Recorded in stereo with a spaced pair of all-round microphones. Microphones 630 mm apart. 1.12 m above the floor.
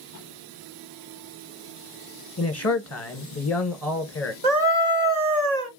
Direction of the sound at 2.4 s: 25° left (ahead or behind).